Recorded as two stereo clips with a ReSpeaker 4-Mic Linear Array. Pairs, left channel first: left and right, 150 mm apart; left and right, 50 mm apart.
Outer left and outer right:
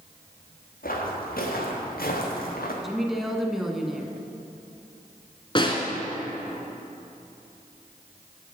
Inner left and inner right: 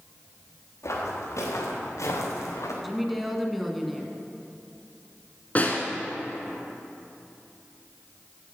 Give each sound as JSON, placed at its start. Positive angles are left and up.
{"t": 0.8, "sound": "footsteps", "side_deg": 75, "distance_m": 3.5}
{"t": 2.8, "sound": "a woman speaking", "side_deg": 0, "distance_m": 1.1}
{"t": 5.5, "sound": "a snare drum", "side_deg": 35, "distance_m": 1.4}